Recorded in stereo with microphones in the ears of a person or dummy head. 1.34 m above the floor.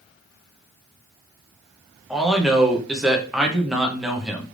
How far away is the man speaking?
About 0.7 m.